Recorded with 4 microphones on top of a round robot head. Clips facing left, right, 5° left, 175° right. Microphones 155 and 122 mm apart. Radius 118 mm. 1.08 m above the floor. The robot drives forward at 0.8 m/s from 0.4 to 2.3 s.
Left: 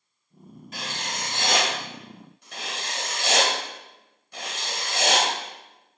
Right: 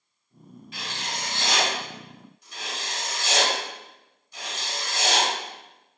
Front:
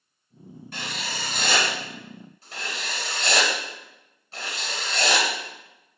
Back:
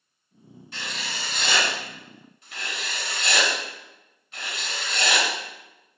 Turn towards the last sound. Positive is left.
turn(degrees=60)